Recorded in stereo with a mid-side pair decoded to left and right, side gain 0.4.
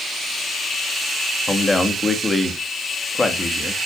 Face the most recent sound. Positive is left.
turn(degrees=30)